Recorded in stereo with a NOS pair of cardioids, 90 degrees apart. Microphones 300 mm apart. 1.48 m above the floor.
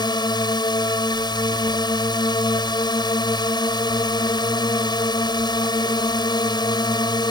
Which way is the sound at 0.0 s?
15° left.